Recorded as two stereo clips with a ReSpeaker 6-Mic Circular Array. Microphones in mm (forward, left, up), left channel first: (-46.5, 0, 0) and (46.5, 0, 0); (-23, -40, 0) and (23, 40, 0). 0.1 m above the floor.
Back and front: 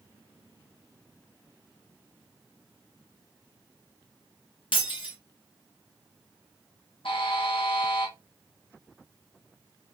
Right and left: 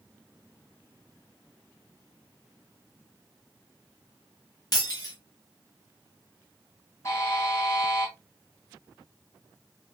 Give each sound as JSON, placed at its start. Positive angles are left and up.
{"t": 4.7, "sound": "breaking glass", "azimuth_deg": -160, "distance_m": 1.7}
{"t": 7.0, "sound": "a buzzer", "azimuth_deg": -175, "distance_m": 2.0}